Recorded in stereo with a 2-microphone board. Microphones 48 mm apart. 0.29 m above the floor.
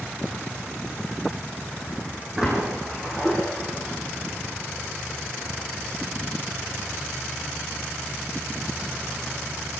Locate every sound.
2.4 s a splash: 15° right (ahead or behind), 10 m